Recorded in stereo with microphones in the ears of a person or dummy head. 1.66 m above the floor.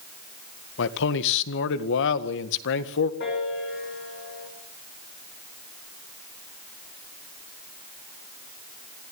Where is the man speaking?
70° left (ahead or behind), 1.8 m.